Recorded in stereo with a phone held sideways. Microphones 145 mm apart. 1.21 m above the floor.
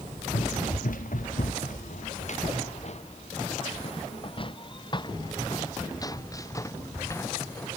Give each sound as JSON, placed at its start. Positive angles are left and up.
{"t": 0.3, "sound": "running footsteps", "side_deg": 70}